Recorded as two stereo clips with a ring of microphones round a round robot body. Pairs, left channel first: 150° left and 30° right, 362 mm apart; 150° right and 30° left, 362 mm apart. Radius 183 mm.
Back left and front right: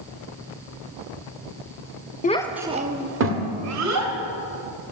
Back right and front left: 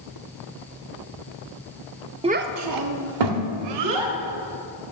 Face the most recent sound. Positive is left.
turn(degrees=15)